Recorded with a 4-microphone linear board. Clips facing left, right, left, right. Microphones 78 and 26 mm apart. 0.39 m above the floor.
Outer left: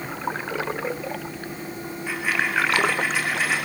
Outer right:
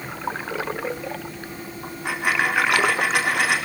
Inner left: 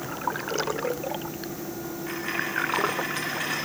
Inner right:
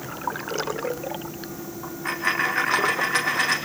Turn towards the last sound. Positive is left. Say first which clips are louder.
# outer right 3 dB, inner right 9 dB
turn(degrees=-70)  # may be behind; listen again after turning